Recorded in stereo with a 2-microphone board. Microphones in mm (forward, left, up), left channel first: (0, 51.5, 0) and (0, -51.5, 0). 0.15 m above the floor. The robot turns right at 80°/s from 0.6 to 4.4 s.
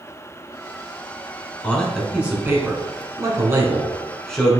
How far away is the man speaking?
About 1.4 m.